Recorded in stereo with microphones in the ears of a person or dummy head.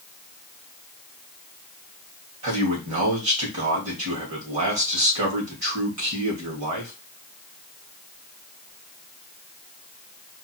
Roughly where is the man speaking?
Right.